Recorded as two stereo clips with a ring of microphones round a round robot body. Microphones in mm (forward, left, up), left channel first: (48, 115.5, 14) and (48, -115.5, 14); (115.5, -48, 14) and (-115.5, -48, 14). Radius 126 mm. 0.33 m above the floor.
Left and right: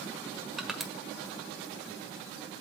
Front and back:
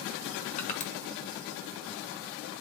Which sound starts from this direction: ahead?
Crushing, at 0.6 s.